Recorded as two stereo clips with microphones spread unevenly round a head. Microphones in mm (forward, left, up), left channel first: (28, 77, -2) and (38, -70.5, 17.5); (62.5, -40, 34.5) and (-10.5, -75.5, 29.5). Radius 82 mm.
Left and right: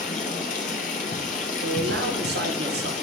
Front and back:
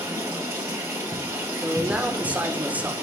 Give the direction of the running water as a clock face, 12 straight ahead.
7 o'clock.